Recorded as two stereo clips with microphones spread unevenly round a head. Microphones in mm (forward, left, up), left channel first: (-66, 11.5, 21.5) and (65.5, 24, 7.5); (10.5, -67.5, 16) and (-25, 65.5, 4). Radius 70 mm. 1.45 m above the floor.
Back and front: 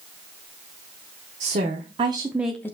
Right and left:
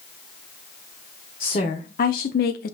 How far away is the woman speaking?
About 0.9 m.